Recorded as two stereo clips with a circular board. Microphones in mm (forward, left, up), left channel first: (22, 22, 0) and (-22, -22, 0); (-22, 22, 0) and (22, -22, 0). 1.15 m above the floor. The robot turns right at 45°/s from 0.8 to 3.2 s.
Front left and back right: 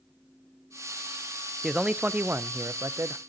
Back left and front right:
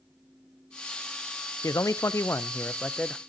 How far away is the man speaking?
About 0.5 m.